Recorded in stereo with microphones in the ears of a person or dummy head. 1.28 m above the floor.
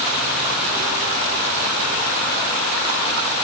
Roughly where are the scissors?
No scissors in this recording.